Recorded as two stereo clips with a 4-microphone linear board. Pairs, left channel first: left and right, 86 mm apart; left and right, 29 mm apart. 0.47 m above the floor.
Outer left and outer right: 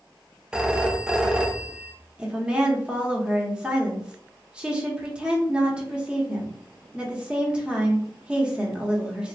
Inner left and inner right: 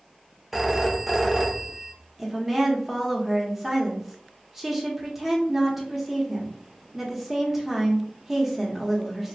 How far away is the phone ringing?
About 0.5 m.